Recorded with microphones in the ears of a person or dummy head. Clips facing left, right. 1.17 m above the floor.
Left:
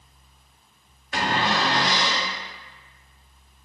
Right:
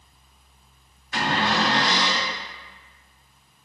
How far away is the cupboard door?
About 1.7 m.